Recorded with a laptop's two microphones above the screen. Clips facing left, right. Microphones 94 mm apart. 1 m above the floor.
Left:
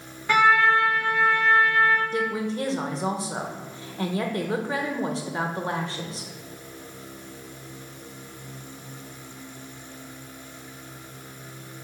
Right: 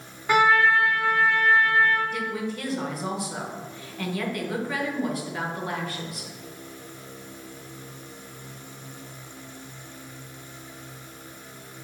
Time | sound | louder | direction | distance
0.3 | a trumpet | even | 10° right (ahead or behind) | 2 m
2.1 | a woman speaking | left 4 dB | 30° left (ahead or behind) | 0.9 m